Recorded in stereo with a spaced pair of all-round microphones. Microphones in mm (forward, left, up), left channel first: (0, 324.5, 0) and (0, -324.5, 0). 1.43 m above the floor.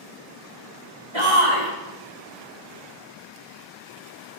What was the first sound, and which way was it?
A shout, 45° right (ahead or behind).